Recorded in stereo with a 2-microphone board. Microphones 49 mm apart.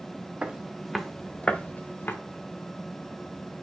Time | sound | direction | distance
0.4 | footsteps | 25° right (ahead or behind) | 1.7 m